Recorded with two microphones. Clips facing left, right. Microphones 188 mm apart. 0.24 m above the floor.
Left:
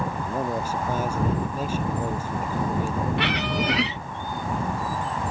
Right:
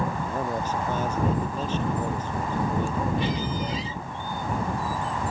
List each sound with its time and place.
0.2 s a man speaking: 10° left (ahead or behind)
3.2 s a squeak: 75° left (ahead or behind)